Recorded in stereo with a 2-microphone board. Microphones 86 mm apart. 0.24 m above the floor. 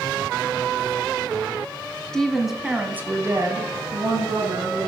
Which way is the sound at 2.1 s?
5° left (ahead or behind).